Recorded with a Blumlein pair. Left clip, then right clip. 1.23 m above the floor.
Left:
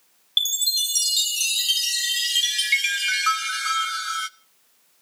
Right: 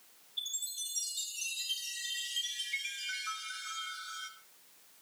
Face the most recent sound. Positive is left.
turn(degrees=45)